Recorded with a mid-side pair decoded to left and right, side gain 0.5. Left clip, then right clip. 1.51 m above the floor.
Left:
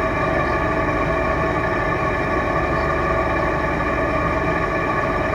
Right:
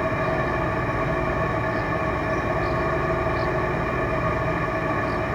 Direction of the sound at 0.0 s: 45° left.